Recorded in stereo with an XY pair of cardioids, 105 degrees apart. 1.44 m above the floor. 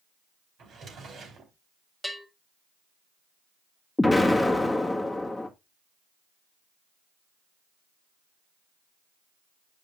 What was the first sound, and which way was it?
A drawer, 55° right.